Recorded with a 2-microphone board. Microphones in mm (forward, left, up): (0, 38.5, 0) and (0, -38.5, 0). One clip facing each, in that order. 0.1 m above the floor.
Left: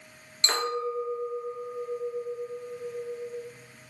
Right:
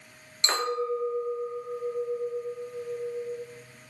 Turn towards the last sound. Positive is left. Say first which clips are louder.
# right 1 dB
turn(degrees=-15)  # may be behind; listen again after turning